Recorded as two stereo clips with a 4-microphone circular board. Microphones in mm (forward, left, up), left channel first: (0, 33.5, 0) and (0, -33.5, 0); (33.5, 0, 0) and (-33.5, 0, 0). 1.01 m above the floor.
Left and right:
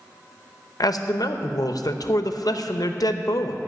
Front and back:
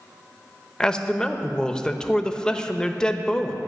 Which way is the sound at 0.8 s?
75° left.